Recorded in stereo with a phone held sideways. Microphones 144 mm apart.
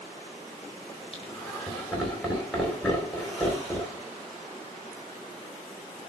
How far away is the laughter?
About 4.5 m.